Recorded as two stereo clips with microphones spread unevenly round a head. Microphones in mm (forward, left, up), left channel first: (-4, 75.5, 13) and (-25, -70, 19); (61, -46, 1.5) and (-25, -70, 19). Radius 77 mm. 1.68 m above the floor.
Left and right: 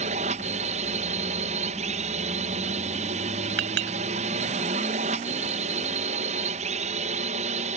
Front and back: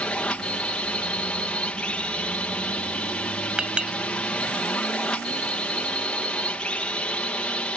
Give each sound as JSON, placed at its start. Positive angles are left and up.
{"t": 0.0, "sound": "a drone", "azimuth_deg": -60}
{"t": 3.6, "sound": "a clink", "azimuth_deg": -90}